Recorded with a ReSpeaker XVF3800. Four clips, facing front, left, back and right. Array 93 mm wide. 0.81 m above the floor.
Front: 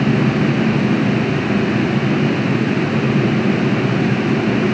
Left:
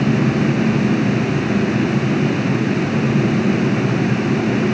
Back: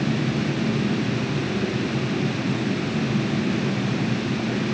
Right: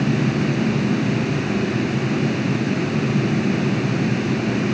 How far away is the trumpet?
I don't hear a trumpet.